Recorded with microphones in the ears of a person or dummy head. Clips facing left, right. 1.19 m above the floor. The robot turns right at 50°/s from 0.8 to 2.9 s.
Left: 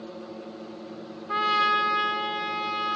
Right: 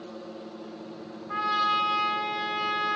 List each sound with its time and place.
1.3 s a trumpet: 125° left, 0.6 m; by 3.0 s 155° right, 0.6 m